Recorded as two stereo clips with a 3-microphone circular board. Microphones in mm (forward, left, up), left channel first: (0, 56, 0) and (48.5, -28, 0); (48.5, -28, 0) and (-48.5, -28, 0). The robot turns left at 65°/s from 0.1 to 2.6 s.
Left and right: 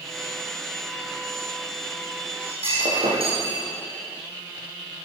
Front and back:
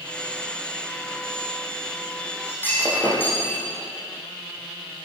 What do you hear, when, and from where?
2.5 s breaking glass: 60° right, 9.5 m; by 3.6 s 70° right, 9.5 m